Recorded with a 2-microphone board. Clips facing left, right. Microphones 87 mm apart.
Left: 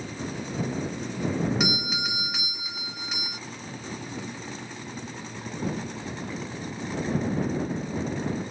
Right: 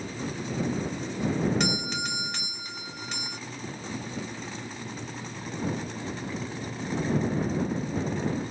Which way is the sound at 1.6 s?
5° left (ahead or behind).